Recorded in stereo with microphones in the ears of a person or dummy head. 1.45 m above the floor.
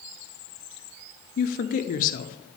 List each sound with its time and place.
1.4 s a woman speaking: 45° left (ahead or behind), 0.6 m